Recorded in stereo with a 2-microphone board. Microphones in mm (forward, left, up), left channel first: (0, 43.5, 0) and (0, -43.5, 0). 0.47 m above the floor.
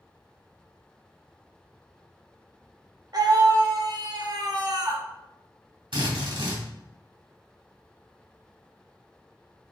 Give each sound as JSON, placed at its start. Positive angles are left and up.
{"t": 3.1, "sound": "a scream", "side_deg": -55, "distance_m": 1.4}
{"t": 5.9, "sound": "a drill", "side_deg": -70, "distance_m": 2.5}